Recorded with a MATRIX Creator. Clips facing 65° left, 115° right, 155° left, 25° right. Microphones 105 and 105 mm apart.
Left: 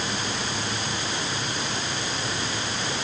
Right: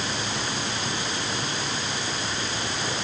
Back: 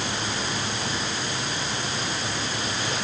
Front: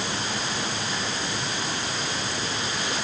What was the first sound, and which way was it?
Only background noise.